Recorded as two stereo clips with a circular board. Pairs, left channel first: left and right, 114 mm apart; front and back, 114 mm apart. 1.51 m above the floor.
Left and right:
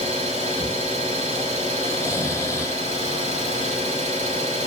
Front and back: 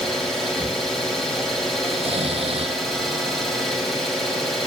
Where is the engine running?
90° right, 3 m.